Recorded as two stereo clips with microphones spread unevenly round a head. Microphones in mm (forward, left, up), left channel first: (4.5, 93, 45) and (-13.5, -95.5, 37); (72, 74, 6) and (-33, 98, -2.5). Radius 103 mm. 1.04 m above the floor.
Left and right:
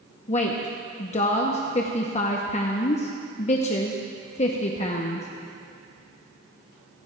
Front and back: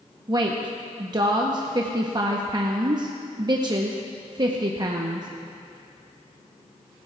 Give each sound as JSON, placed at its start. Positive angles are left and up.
{"t": 0.3, "sound": "a woman speaking", "azimuth_deg": 135, "distance_m": 0.8}